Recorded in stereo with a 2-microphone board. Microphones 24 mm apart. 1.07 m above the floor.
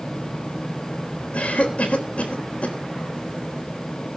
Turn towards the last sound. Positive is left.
turn(degrees=65)  # may be behind; listen again after turning